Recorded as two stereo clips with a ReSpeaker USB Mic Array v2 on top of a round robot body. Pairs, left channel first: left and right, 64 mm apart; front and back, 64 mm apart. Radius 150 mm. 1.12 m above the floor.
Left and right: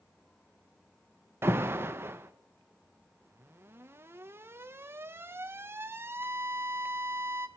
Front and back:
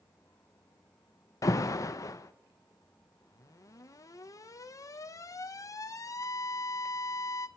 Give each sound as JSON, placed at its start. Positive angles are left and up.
{"t": 1.4, "sound": "an alarm", "azimuth_deg": -35, "distance_m": 0.6}